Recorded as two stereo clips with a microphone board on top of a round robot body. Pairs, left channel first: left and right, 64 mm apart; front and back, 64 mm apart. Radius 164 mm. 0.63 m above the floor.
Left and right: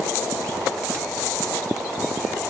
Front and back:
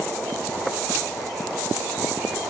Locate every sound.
Only background noise.